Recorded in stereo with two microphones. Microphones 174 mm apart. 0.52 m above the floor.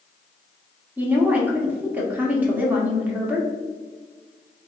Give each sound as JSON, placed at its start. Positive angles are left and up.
{"t": 1.0, "sound": "a woman speaking", "side_deg": -10, "distance_m": 0.9}